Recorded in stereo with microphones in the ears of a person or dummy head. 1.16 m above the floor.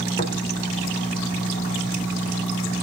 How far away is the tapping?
About 3 m.